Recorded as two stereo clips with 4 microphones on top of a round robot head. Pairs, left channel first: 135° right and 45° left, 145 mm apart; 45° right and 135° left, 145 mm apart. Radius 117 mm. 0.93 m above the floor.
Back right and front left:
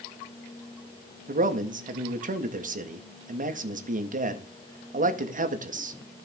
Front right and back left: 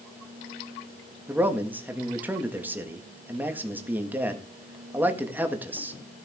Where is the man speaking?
60° left, 1.7 m.